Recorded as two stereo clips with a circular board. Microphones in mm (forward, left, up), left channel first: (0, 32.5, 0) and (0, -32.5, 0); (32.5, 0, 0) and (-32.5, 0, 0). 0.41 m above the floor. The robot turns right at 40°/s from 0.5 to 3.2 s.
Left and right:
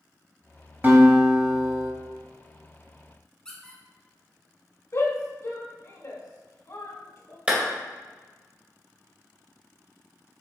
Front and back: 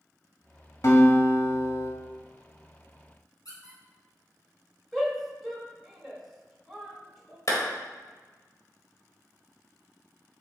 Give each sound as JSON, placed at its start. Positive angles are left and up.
{"t": 0.8, "sound": "a guitar", "azimuth_deg": -30, "distance_m": 1.4}
{"t": 3.5, "sound": "a squeak", "azimuth_deg": 10, "distance_m": 2.0}
{"t": 4.9, "sound": "a shout", "azimuth_deg": 85, "distance_m": 1.4}
{"t": 7.5, "sound": "a clap", "azimuth_deg": -25, "distance_m": 1.8}